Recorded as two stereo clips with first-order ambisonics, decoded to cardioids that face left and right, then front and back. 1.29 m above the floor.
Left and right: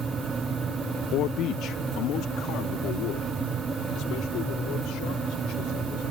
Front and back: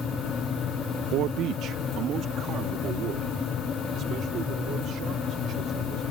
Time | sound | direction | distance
1.1 | a man speaking | 135° left | ?